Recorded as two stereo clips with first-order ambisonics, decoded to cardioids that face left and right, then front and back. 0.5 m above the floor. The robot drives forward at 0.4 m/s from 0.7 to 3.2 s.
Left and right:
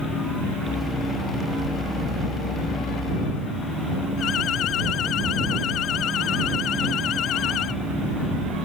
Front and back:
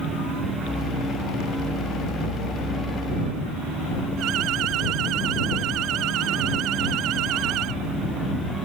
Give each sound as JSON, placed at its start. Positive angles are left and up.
{"t": 4.2, "sound": "an alarm", "azimuth_deg": 140}